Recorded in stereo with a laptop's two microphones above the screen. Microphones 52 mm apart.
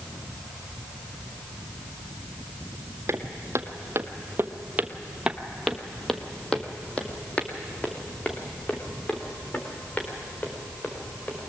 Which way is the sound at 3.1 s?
55° right (ahead or behind).